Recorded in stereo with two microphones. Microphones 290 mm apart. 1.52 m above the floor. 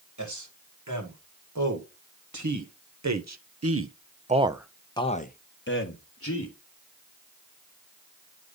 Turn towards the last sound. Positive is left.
turn(degrees=55)  # may be behind; listen again after turning